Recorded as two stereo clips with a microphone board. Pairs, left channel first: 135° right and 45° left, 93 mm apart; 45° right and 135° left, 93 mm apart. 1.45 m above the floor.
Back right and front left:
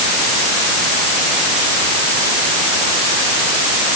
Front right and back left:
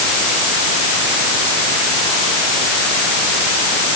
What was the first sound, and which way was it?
Only background noise.